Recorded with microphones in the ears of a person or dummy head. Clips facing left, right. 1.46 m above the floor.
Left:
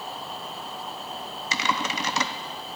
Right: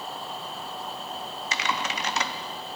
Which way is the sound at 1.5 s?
65° left (ahead or behind).